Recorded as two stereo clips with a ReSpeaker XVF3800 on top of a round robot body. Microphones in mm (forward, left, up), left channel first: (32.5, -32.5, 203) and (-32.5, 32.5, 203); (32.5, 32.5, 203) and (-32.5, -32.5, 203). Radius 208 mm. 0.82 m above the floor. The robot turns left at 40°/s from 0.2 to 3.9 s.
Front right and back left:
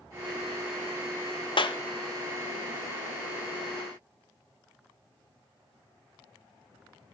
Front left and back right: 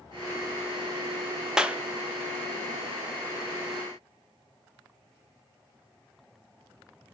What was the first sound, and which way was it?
A clap, 55° right.